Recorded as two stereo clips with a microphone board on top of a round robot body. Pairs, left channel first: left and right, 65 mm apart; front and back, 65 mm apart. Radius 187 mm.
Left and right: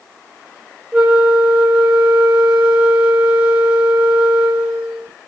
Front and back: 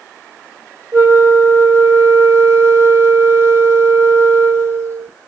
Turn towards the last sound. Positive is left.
turn(degrees=-150)